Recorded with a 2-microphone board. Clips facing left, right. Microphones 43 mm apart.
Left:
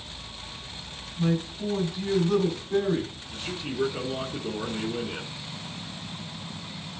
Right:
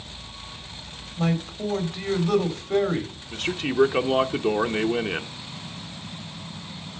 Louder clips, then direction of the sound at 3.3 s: Right 9 dB; 60° right (ahead or behind).